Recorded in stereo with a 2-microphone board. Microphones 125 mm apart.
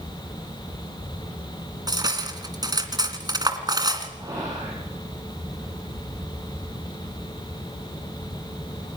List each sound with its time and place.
1.9 s cutlery clinking: 30° right (ahead or behind), 1.9 m
4.2 s whispering: 30° right (ahead or behind), 9 m